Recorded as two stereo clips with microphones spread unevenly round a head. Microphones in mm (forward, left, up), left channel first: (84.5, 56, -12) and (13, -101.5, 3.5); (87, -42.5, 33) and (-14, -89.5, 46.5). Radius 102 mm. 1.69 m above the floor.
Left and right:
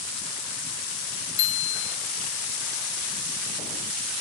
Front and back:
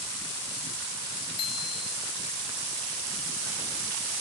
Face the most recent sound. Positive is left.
turn(degrees=90)